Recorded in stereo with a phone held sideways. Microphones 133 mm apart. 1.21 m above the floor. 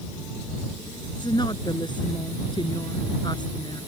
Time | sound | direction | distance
1.2 | a woman speaking | 35° left (ahead or behind) | ?